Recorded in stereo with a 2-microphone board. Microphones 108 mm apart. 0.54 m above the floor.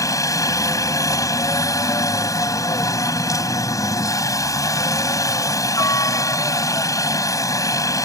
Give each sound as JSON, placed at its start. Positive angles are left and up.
{"t": 0.0, "sound": "a helicopter", "side_deg": 30}